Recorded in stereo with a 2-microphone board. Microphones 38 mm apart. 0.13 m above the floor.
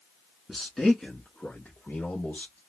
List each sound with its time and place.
0.5 s a man speaking: centre (ahead or behind), 1.4 m; by 2.6 s 45° left (ahead or behind), 2.5 m